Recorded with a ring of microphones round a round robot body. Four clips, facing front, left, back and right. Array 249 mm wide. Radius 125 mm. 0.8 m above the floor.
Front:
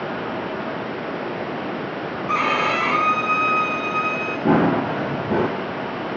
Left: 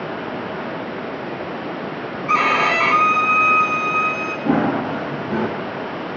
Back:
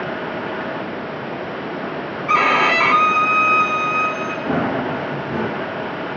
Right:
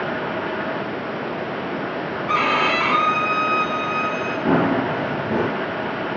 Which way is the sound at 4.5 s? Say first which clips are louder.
Even, front 4 dB; 20° right.